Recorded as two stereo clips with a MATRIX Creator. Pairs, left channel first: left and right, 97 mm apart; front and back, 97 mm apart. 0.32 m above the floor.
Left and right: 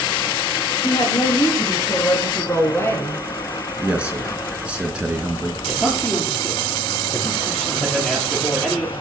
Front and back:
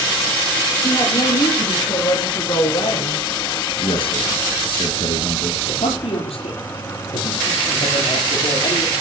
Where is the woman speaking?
40° left, 6.5 m; by 3.2 s 25° left, 8 m.